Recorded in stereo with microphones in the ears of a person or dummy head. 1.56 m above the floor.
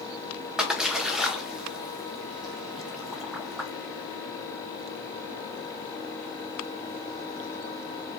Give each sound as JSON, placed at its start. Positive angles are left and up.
{"t": 0.6, "sound": "a splash", "side_deg": 0, "distance_m": 0.8}